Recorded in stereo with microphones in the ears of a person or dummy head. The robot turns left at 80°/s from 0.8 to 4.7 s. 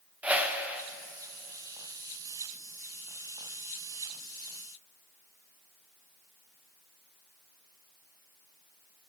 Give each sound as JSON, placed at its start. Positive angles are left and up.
{"t": 0.2, "sound": "a whoosh", "side_deg": -5, "distance_m": 0.5}